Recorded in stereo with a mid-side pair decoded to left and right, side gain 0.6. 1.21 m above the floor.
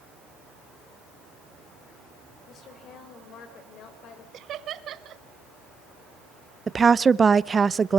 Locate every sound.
2.5 s a woman speaking: 50° left, 6 m
4.3 s laughter: 50° right, 1.9 m
6.7 s a woman speaking: 25° right, 0.7 m